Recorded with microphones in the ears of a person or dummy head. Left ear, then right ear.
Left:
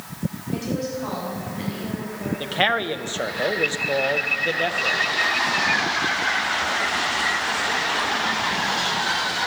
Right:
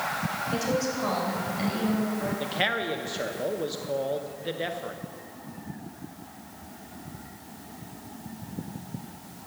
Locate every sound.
0.5 s a woman speaking: 85° right, 3.5 m
2.4 s a man speaking: 30° left (ahead or behind), 0.6 m